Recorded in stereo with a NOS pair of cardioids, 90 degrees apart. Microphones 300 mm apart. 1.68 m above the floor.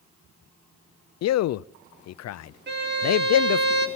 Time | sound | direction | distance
1.2 | a man speaking | 60° left | 0.5 m
2.7 | a violin | 35° right | 3 m